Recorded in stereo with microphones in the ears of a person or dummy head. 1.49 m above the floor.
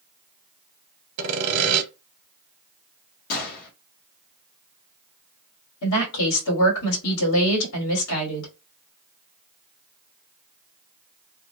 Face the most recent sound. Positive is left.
turn(degrees=75)  # may be behind; listen again after turning